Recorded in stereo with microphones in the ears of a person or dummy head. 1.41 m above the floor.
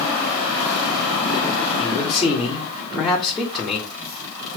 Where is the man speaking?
Centre (ahead or behind), 2 m.